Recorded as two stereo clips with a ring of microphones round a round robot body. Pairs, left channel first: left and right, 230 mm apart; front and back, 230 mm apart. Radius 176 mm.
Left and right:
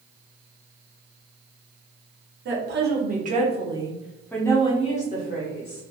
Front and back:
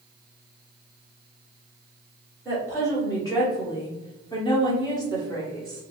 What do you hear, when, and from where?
2.5 s a woman speaking: 75° right, 1.2 m; by 5.8 s 75° left, 1.1 m